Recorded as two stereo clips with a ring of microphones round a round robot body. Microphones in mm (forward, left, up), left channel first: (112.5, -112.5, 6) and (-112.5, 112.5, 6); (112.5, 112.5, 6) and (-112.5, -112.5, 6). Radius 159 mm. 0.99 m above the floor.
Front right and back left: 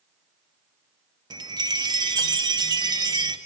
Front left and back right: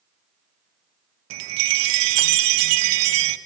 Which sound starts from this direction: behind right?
A chime, at 1.3 s.